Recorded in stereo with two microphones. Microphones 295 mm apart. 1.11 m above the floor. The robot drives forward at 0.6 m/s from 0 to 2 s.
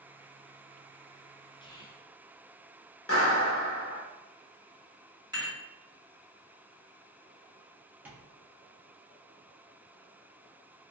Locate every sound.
1.6 s whispering: 15° left (ahead or behind), 0.6 m; by 2.1 s 10° left (ahead or behind), 0.8 m
3.1 s a clap: 50° left (ahead or behind), 0.9 m
5.3 s dishes clattering: 15° right (ahead or behind), 1.6 m
8.1 s tapping: 5° right (ahead or behind), 0.8 m